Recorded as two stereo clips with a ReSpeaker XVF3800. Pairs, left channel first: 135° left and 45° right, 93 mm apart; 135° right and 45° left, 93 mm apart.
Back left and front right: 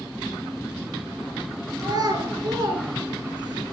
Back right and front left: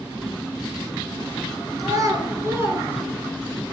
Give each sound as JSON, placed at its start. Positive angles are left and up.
{"t": 1.8, "sound": "a child speaking", "azimuth_deg": -5, "distance_m": 3.0}